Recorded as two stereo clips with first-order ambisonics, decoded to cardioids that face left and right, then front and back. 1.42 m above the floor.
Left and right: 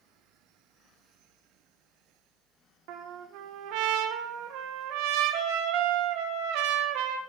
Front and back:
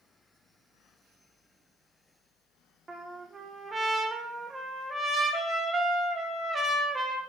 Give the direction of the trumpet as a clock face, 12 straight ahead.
4 o'clock.